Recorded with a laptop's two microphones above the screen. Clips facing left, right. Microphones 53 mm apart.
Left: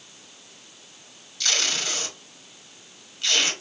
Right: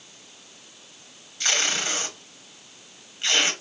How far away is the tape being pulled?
About 0.9 m.